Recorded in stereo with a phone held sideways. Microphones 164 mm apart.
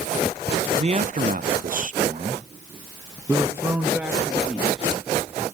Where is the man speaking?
40° right (ahead or behind), 0.7 m; by 5.5 s centre (ahead or behind), 2 m.